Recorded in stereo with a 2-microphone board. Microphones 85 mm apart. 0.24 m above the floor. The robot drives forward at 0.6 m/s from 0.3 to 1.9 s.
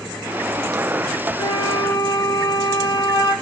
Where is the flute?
65° left (ahead or behind), 2.5 m; by 3.3 s 60° left (ahead or behind), 2.5 m.